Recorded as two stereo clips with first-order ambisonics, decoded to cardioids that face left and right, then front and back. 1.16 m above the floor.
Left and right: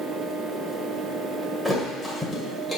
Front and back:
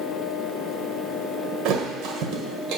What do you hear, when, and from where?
1.6 s a thud: straight behind, 1.5 m